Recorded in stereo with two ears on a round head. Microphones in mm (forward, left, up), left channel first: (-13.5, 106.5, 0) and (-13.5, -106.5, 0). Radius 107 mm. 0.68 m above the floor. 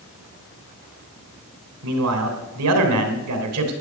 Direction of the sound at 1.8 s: 75° right (ahead or behind).